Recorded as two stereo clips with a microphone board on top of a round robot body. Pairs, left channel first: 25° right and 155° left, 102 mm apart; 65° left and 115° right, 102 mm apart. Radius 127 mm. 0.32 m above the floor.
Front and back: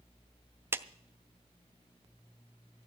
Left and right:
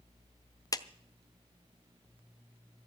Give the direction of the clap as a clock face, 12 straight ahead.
9 o'clock.